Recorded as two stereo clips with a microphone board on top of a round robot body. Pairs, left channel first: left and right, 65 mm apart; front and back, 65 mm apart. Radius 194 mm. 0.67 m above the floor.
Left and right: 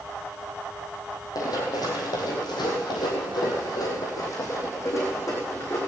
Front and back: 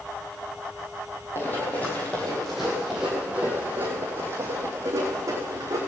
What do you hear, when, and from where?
1.4 s running footsteps: 60° left, 1.7 m; by 5.8 s 140° left, 2.5 m